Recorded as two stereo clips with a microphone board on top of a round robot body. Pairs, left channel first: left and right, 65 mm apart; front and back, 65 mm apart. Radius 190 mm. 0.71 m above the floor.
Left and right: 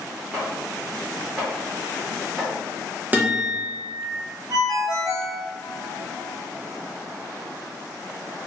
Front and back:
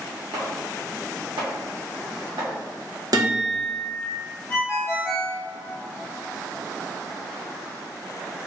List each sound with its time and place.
0.3 s chopping: 170° right, 0.6 m
3.1 s a guitar: 155° right, 1.1 m
4.5 s a ringtone: 65° right, 1.3 m